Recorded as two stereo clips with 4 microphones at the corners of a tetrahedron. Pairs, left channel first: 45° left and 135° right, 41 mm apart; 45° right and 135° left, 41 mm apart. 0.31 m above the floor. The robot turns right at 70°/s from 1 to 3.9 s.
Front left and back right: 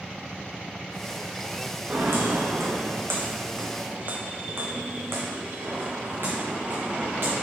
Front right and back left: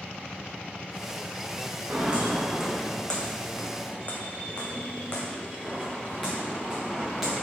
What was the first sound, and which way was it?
Footsteps, 175° right.